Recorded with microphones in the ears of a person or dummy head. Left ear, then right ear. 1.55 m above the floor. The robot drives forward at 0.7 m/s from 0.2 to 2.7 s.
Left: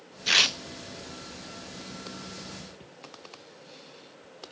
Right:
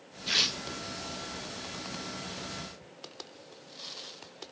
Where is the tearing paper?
35° left (ahead or behind), 0.6 m; by 0.6 s 25° left (ahead or behind), 0.7 m.